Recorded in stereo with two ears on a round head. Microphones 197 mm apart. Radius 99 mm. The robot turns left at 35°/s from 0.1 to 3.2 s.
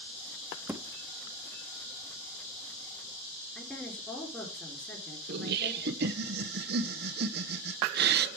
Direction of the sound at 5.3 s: 50° right (ahead or behind).